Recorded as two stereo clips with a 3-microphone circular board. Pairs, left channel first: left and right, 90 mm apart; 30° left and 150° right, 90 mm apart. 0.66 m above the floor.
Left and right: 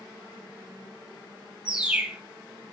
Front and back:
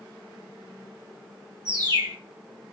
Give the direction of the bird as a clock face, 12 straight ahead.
6 o'clock.